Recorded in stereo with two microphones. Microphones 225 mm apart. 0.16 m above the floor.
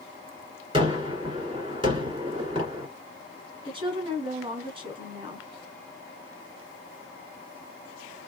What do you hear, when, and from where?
0.7 s a gunshot: 20° right (ahead or behind), 2 m
3.6 s a woman speaking: 20° right (ahead or behind), 1.1 m